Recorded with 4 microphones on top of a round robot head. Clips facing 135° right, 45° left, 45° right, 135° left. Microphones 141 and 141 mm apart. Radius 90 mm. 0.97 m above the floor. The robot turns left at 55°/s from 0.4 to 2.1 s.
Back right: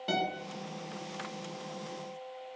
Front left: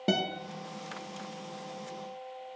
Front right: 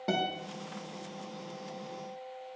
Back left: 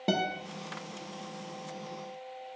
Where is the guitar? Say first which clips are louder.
Front left 2 dB, back left 2 dB; 70° left, 1.3 m.